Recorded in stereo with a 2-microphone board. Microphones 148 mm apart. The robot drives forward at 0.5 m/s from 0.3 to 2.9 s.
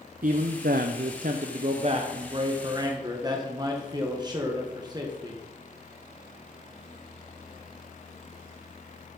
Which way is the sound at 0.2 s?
70° right (ahead or behind).